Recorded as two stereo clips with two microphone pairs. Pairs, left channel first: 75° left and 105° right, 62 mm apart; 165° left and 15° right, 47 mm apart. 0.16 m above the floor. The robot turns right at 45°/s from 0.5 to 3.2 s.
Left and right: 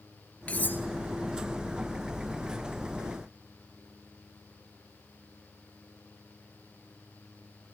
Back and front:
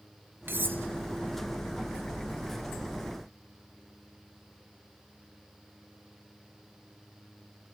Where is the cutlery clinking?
10° left, 1.6 m; by 0.8 s 25° left, 1.6 m.